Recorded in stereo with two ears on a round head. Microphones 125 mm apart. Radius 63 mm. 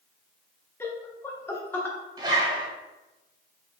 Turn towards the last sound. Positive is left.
turn(degrees=-30)  # may be behind; listen again after turning